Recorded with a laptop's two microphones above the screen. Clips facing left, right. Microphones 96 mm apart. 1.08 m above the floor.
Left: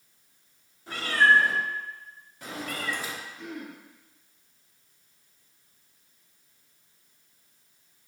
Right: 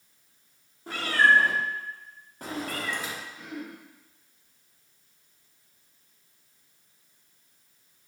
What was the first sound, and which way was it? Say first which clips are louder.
A cat meowing: even; 45° right (ahead or behind).